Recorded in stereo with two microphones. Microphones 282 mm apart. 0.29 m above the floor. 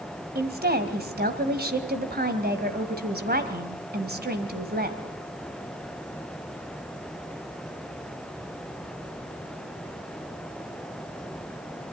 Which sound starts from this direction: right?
A woman speaking, at 0.3 s.